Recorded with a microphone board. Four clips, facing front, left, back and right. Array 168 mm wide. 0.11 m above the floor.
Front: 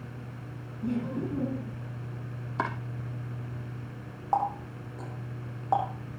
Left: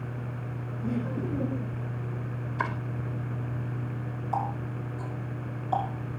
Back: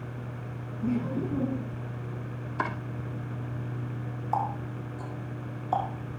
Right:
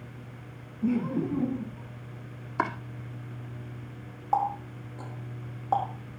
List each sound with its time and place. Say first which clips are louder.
0.8 s laughter: right 4 dB, back 2 dB; 95° right, 2.5 m; by 1.9 s 90° right, 3 m
2.6 s chopping: right 3 dB, even; 55° right, 4 m
4.3 s a running tap: right 5 dB, front 2 dB; 40° right, 8.5 m